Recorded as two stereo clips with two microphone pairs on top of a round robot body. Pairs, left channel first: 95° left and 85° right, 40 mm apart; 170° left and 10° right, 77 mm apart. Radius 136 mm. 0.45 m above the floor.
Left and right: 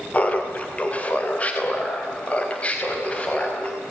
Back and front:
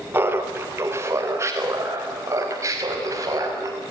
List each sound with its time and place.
0.1 s laughter: 45° left, 2.5 m; by 3.8 s 35° left, 5.5 m